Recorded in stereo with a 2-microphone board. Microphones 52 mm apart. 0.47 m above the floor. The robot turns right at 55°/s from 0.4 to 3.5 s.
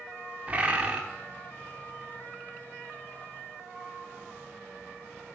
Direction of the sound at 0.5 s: 25° right (ahead or behind).